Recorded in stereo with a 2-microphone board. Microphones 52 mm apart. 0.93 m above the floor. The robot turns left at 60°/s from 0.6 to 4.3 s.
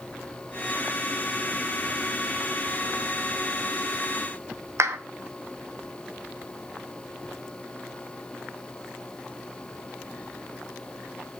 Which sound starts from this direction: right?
A clap, at 4.8 s.